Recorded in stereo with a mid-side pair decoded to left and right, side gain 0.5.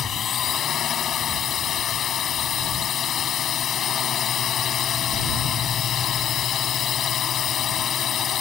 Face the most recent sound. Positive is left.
turn(degrees=55)